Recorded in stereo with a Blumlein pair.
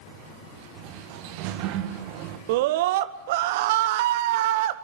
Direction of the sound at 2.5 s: 50° right.